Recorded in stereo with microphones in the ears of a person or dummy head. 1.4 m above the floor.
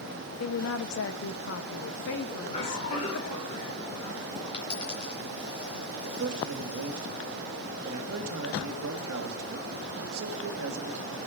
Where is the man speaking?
85° right, 2 m.